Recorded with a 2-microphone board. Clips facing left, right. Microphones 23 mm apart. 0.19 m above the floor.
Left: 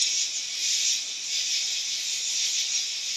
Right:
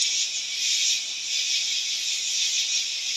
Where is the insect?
20° right (ahead or behind), 5 m.